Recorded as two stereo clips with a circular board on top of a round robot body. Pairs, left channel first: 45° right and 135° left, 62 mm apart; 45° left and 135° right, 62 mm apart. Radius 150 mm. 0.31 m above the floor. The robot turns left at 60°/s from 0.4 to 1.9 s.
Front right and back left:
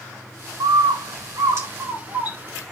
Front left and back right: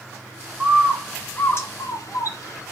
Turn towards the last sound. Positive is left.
turn(degrees=75)